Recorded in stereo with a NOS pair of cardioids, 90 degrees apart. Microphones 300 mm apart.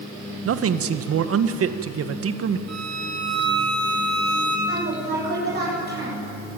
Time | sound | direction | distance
0.4 | a man speaking | 50° right | 1.5 m
2.7 | a violin | 55° right | 4.5 m
4.7 | a woman speaking | 35° right | 8 m